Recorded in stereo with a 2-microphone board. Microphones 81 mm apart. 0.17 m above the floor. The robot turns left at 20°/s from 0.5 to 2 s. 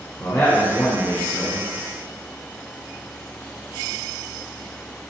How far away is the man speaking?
About 1.4 m.